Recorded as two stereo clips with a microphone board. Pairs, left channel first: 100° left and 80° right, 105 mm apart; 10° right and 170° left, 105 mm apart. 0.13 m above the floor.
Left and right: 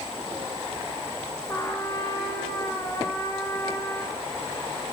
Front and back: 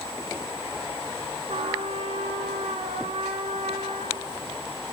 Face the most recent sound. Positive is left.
turn(degrees=165)